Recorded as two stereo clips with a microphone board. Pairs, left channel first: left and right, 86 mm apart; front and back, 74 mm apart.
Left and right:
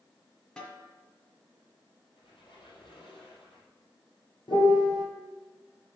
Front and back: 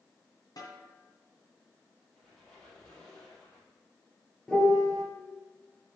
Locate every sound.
0.6 s a snare drum: 10° left, 1.9 m
2.1 s a squeak: 80° left, 3.5 m
4.5 s a piano: 85° left, 2.5 m